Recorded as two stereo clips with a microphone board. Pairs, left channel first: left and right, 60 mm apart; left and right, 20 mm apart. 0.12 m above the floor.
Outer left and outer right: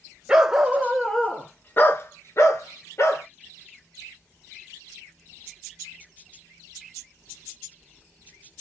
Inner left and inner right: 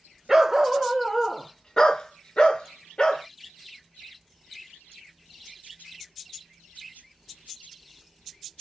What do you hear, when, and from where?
0.3 s a dog barking: 15° right (ahead or behind), 1.0 m; by 3.2 s 50° left (ahead or behind), 1.3 m